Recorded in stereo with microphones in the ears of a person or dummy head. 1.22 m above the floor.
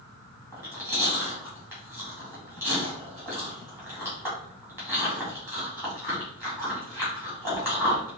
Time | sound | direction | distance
0.5 | chewing | 10° right (ahead or behind) | 2 m